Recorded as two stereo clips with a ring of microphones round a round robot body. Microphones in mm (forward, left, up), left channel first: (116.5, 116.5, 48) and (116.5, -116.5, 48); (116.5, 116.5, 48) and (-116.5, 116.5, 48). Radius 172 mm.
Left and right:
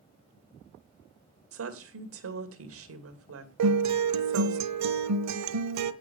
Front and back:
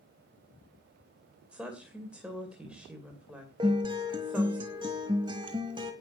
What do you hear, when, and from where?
1.5 s a woman speaking: 95° right, 2.5 m
3.6 s a guitar: 105° right, 1.0 m